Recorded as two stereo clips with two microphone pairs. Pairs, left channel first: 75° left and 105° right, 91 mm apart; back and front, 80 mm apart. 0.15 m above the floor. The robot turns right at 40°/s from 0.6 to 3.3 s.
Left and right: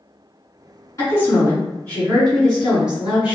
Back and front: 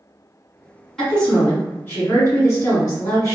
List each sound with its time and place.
1.0 s a woman speaking: 100° left, 1.9 m; by 3.4 s 170° right, 1.9 m